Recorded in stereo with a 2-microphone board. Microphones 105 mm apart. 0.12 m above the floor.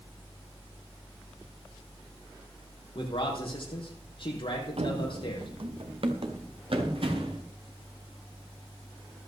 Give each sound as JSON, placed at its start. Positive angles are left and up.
{"t": 3.0, "sound": "a man speaking", "side_deg": 55, "distance_m": 4.0}
{"t": 4.8, "sound": "running footsteps", "side_deg": -70, "distance_m": 0.7}